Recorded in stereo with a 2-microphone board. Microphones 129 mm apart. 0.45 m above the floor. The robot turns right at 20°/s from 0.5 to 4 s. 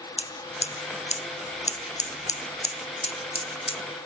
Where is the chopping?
No chopping in this recording.